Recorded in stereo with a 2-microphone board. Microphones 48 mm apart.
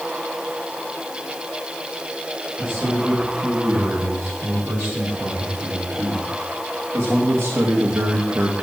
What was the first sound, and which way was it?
A man speaking, 85° right.